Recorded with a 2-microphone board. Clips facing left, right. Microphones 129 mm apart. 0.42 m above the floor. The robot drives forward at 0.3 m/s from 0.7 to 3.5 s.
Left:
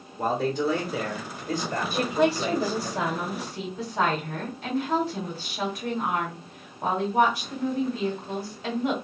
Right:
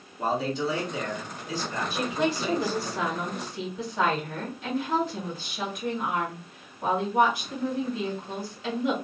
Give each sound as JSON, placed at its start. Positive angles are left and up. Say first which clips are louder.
{"t": 0.2, "sound": "a man speaking", "louder": "left 2 dB", "side_deg": 45, "distance_m": 1.5}
{"t": 1.9, "sound": "a woman speaking", "louder": "left 5 dB", "side_deg": 35, "distance_m": 1.9}